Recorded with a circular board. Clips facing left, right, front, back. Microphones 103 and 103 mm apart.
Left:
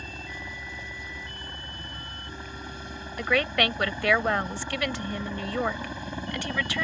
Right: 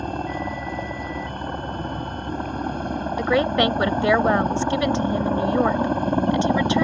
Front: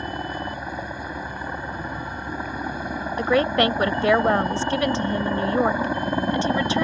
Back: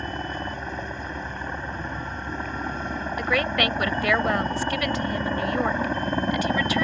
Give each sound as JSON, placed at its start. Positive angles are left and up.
{"t": 0.0, "sound": "a helicopter", "azimuth_deg": -80}
{"t": 3.2, "sound": "a woman speaking", "azimuth_deg": -40}